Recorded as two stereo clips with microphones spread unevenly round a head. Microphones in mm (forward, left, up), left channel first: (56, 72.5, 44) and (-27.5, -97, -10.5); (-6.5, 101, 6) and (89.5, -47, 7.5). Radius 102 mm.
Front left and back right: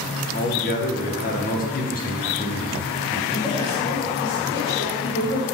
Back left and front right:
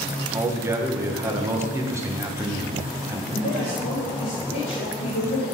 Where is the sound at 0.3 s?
20° left, 1.3 m.